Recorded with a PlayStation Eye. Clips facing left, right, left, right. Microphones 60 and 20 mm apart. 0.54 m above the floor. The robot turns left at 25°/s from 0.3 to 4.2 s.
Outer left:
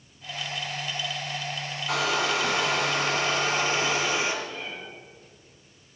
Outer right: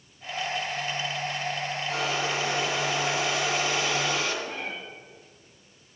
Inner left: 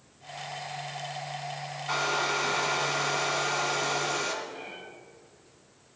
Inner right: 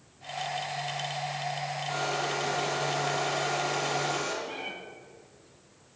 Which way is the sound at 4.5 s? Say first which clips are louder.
Outer right 2 dB, inner right 4 dB; 55° right (ahead or behind).